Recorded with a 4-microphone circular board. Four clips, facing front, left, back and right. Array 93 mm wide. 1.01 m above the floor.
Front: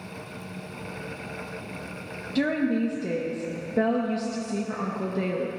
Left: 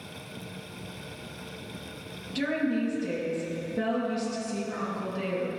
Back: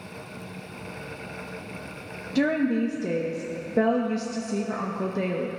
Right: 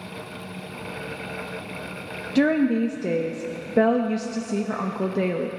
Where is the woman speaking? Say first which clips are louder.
Right 8 dB, back 1 dB; 100° right, 0.9 m.